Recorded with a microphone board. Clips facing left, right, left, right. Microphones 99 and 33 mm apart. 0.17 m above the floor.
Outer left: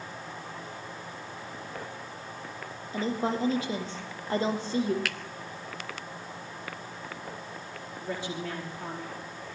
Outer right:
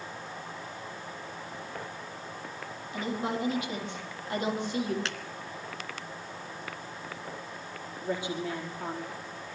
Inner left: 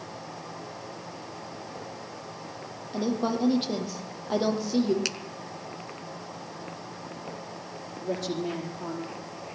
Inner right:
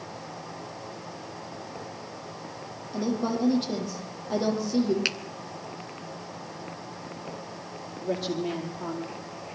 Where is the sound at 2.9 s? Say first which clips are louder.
Outer left 3 dB, even; 30° left (ahead or behind), 7 m.